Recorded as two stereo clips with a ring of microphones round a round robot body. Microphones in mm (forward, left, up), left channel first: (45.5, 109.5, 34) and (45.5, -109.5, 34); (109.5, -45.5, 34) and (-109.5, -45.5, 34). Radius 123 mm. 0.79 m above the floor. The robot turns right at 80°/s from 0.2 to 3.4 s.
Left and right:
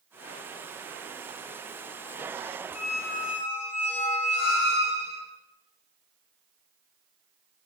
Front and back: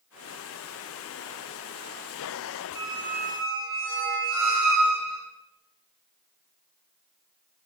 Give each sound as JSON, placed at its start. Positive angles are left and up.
{"t": 2.8, "sound": "a squeak", "azimuth_deg": 105, "distance_m": 1.4}